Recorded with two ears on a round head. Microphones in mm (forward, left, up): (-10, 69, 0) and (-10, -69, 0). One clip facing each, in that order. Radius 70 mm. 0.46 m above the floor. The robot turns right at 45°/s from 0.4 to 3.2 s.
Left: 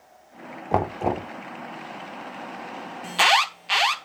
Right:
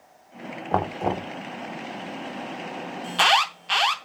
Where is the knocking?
15° left (ahead or behind), 0.6 m; by 1.3 s centre (ahead or behind), 0.6 m.